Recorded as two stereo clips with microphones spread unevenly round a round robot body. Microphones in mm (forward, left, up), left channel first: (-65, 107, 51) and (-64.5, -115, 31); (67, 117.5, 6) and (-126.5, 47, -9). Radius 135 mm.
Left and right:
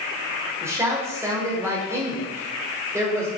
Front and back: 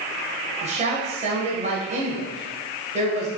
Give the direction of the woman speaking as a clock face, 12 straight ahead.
5 o'clock.